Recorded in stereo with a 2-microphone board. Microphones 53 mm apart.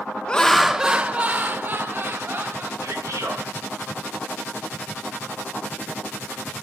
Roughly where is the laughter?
Centre.